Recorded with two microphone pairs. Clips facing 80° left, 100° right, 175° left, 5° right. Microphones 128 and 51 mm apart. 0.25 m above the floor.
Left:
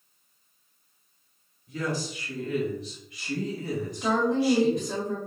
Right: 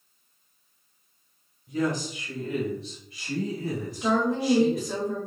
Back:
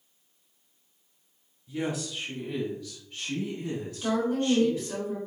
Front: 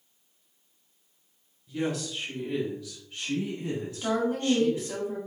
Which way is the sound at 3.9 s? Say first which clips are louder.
Even, back 1 dB; 20° right.